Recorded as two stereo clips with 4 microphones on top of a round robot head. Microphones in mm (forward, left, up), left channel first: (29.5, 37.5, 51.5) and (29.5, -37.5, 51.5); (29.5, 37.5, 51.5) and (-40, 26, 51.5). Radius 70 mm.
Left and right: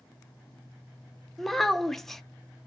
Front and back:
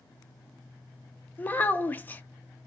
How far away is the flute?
No flute in this recording.